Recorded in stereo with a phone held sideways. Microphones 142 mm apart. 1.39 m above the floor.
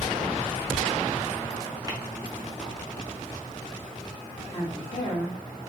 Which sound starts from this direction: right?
Tapping, at 1.9 s.